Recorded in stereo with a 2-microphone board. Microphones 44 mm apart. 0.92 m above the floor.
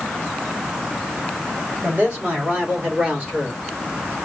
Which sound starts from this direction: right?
A man speaking, at 1.8 s.